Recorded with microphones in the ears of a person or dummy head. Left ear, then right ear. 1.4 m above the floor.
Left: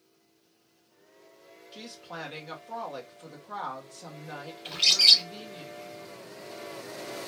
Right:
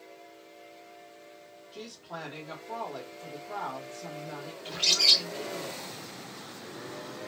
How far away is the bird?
About 1.1 m.